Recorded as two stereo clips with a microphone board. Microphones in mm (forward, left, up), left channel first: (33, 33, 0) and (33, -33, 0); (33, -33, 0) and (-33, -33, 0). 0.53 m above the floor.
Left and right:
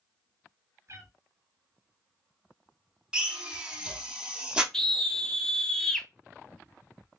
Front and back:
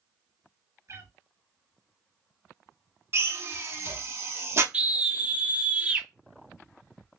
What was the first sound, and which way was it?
A cat meowing, 135° right.